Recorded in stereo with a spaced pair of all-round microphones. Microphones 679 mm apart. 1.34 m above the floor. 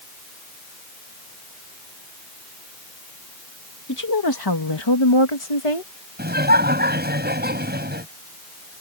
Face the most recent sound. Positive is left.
turn(degrees=-15)  # may be behind; listen again after turning